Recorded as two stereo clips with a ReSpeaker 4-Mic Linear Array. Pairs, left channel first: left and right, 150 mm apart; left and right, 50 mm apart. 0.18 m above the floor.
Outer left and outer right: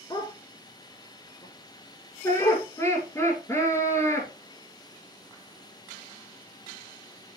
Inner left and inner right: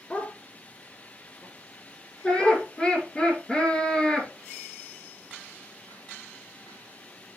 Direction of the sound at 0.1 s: 25° left (ahead or behind).